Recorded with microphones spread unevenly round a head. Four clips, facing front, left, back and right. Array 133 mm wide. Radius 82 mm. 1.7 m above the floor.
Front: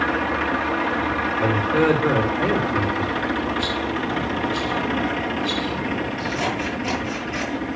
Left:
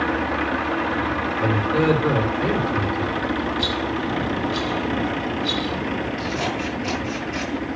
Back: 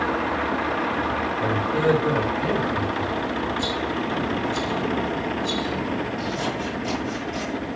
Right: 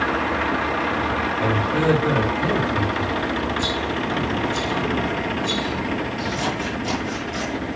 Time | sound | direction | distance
1.4 | a man speaking | 10° left | 4 m
3.6 | a rattle | 5° left | 5 m
6.2 | scissors | 15° left | 8.5 m